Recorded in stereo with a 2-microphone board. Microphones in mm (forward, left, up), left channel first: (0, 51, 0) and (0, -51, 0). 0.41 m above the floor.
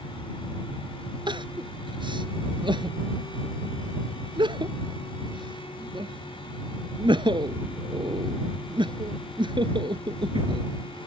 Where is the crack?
I don't hear a crack.